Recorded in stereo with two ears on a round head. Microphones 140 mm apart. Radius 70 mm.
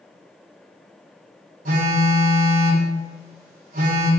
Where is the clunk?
No clunk in this recording.